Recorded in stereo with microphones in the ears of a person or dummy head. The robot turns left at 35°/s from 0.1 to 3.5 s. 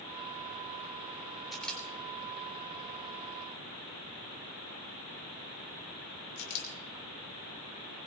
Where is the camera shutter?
Centre (ahead or behind), 2 m; by 8.1 s 70° left (ahead or behind), 2 m.